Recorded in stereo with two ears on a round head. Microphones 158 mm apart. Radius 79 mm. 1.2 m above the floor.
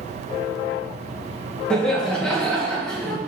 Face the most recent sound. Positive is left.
turn(degrees=5)  # may be behind; listen again after turning